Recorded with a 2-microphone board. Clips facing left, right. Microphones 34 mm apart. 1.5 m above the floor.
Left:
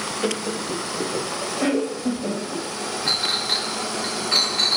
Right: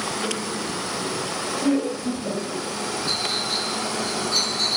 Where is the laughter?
45° left (ahead or behind), 0.9 m; by 2.6 s 55° left (ahead or behind), 2.5 m.